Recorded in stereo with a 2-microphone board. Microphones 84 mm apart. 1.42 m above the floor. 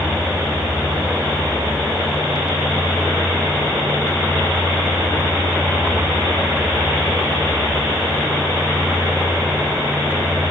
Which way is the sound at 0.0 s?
10° right (ahead or behind).